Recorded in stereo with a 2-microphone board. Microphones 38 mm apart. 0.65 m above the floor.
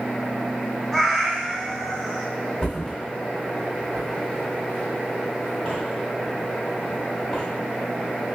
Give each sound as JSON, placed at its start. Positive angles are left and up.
{"t": 0.9, "sound": "a cat meowing", "side_deg": 0, "distance_m": 0.7}
{"t": 2.6, "sound": "a thud", "side_deg": 25, "distance_m": 1.5}